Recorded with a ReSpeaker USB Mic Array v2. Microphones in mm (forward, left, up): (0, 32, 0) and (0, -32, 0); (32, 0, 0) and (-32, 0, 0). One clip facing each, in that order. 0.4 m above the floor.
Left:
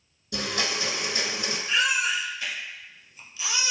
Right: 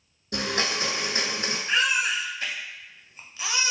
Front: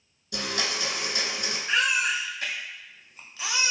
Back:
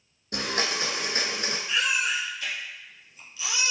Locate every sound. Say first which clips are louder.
0.3 s a blender: right 2 dB, back 2 dB; 135° right, 0.7 m
1.7 s a baby crying: right 1 dB, front 3 dB; 40° right, 0.6 m